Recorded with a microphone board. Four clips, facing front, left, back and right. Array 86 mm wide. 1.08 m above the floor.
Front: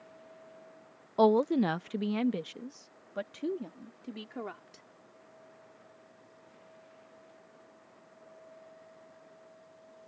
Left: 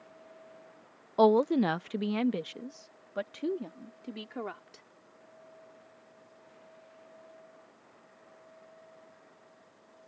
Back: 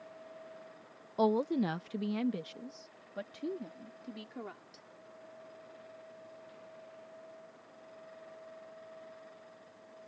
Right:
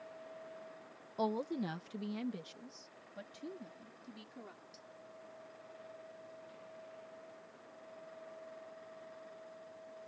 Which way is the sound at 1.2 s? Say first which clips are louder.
Left 13 dB, front 5 dB; 60° left.